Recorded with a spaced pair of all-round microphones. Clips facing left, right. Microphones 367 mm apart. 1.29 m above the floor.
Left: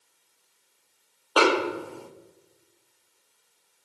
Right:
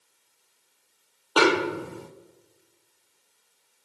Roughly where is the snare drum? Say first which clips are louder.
Right 1 dB; right.